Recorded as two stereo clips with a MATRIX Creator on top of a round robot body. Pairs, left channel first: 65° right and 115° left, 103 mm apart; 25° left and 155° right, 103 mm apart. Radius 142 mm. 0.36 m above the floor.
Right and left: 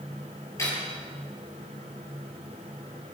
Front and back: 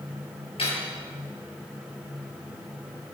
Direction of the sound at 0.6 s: 5° right.